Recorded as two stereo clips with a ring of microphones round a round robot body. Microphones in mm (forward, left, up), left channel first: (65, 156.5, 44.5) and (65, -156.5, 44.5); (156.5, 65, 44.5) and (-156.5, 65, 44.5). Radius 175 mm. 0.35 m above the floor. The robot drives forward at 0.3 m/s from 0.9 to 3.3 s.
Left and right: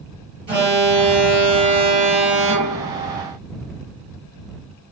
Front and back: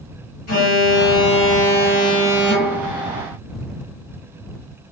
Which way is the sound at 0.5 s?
20° right.